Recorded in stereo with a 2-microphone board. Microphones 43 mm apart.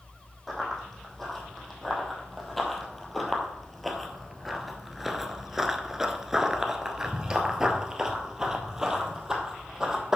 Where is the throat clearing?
I don't hear throat clearing.